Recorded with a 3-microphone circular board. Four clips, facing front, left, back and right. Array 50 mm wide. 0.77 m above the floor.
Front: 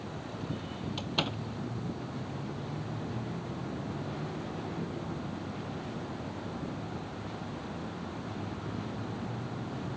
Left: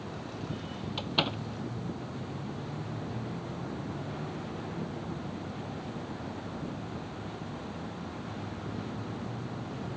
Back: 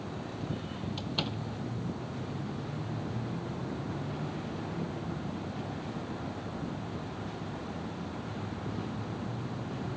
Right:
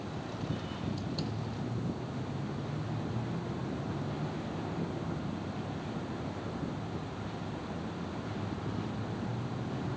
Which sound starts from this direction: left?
A door slam, at 1.0 s.